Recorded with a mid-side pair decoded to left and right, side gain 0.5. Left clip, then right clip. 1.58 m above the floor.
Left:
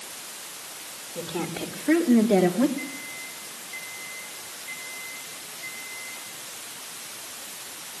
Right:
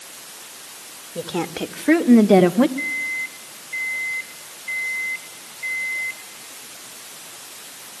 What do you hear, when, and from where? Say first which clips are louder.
1.1 s a woman speaking: right 6 dB; 45° right, 3 m; by 2.7 s 65° right, 1.6 m
2.8 s a microwave: right 11 dB; 60° right, 5 m